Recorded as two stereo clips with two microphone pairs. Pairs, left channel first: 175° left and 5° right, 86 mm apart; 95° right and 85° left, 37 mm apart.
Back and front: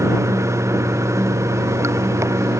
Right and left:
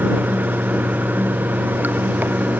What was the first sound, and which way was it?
Running water, 50° left.